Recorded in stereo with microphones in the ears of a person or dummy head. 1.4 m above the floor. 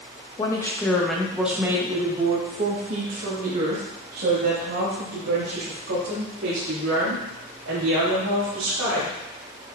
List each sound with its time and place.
0.4 s a woman speaking: 25° left (ahead or behind), 1.2 m; by 9.1 s 70° right (ahead or behind), 4.5 m